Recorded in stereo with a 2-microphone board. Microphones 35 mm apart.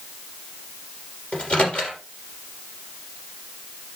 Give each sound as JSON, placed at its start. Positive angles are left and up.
{"t": 1.3, "sound": "a microwave", "side_deg": 35, "distance_m": 3.0}